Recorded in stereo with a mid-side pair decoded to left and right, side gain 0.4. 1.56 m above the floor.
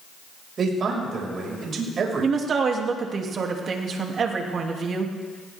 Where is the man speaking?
55° right, 5.5 m.